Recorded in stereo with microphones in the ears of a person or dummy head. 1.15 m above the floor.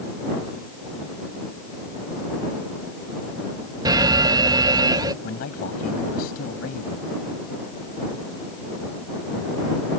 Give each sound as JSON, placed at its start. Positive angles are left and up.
{"t": 3.9, "sound": "an alarm", "side_deg": -25}
{"t": 5.2, "sound": "a man speaking", "side_deg": 55}